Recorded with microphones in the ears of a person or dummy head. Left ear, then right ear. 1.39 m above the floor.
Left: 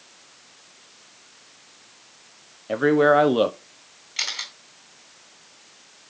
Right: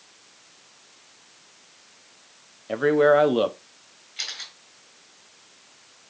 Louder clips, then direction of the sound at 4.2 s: Left 5 dB; 35° left (ahead or behind).